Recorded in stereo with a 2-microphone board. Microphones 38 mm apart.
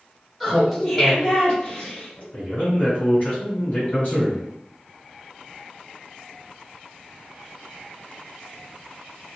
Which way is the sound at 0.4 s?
Centre (ahead or behind).